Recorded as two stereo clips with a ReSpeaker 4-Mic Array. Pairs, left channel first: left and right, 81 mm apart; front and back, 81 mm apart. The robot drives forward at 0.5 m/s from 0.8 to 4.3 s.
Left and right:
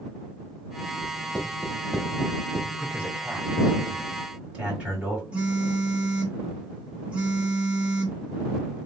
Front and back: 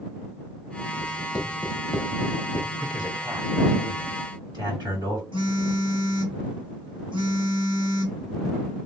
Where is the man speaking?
165° right, 2 m; by 5.2 s 170° right, 3 m.